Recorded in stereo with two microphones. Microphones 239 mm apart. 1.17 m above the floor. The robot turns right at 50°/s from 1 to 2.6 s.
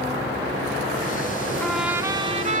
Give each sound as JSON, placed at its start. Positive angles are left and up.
{"t": 1.6, "sound": "a trumpet", "azimuth_deg": 175, "distance_m": 1.6}